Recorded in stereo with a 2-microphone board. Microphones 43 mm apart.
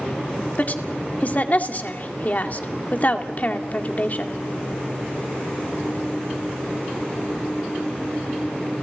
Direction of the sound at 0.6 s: 40° left (ahead or behind).